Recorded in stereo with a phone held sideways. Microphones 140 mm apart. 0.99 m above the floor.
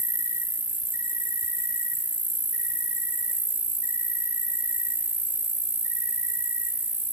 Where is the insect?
75° left (ahead or behind), 1.7 m.